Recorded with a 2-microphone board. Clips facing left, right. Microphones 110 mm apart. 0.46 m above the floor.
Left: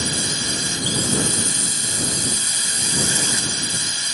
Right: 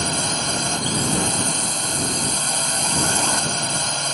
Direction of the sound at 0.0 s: 50° right (ahead or behind).